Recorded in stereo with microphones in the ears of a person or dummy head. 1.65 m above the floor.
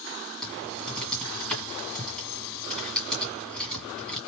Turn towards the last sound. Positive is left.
turn(degrees=0)  # may be behind; listen again after turning